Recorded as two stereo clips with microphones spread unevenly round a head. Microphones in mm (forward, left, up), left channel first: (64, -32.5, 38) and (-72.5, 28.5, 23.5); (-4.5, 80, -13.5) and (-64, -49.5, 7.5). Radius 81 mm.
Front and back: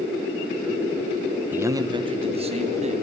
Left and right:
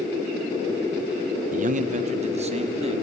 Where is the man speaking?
135° right, 1.0 m; by 3.0 s 165° right, 2.5 m.